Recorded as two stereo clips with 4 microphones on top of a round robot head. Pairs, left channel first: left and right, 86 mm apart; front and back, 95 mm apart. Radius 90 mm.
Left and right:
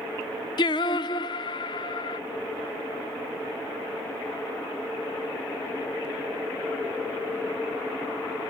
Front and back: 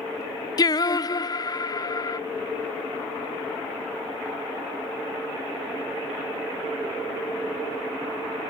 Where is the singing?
50° left, 0.6 m.